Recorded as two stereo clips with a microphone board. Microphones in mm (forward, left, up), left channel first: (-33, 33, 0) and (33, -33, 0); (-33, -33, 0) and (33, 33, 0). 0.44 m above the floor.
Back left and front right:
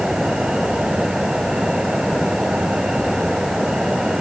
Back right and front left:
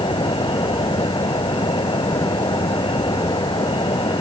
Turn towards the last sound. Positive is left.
turn(degrees=-125)